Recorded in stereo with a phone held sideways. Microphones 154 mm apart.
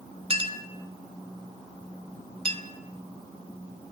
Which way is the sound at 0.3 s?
35° right (ahead or behind).